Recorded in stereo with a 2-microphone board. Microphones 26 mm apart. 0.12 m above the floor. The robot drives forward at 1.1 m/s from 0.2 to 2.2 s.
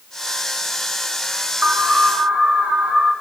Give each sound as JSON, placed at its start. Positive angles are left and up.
{"t": 1.6, "sound": "an alarm", "side_deg": -80, "distance_m": 3.5}